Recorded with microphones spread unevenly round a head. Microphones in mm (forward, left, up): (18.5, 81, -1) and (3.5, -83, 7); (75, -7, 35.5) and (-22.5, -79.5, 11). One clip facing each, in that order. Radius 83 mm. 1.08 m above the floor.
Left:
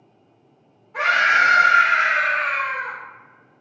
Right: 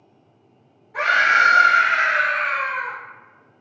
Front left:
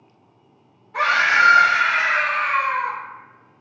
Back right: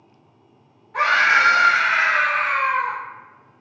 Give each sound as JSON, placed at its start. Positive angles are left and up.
{"t": 0.9, "sound": "a scream", "azimuth_deg": -15, "distance_m": 1.6}